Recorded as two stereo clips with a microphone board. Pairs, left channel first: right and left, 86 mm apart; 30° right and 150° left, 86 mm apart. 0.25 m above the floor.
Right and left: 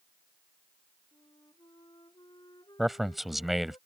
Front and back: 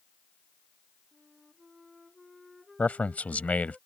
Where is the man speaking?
5° left.